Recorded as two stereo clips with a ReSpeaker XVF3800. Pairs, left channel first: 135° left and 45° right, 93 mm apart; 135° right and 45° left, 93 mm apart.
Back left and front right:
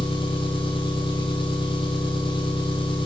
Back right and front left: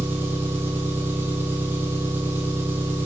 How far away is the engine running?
About 1.9 m.